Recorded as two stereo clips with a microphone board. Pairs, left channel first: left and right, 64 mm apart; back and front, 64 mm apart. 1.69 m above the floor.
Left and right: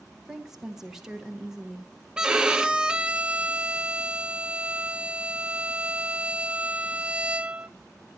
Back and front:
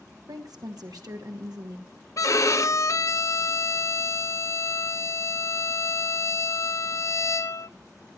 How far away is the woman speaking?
About 1.9 m.